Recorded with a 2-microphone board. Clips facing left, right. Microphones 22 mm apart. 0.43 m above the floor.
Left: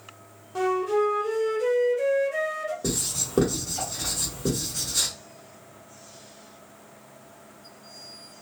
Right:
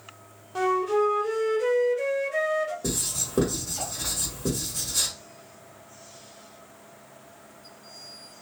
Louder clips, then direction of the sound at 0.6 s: Even; 10° right (ahead or behind).